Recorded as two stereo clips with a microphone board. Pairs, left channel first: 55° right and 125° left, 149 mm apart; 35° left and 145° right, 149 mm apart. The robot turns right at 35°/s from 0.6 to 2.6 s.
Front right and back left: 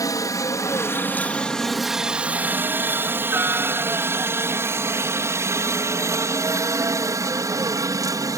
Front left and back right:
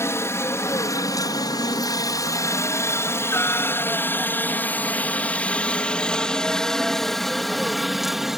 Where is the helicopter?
20° right; by 8.4 s 130° left.